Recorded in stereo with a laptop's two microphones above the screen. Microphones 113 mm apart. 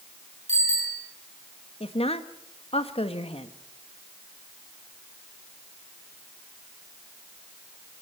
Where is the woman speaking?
60° left (ahead or behind), 1.3 m.